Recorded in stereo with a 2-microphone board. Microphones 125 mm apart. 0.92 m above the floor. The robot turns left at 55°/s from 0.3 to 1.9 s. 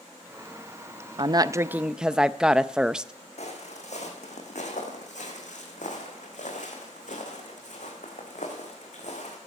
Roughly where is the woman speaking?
Behind right.